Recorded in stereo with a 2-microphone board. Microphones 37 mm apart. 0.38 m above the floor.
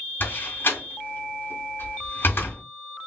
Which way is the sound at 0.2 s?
65° left (ahead or behind).